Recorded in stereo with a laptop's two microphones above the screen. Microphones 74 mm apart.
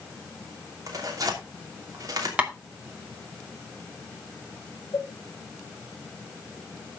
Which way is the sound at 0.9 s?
50° right (ahead or behind).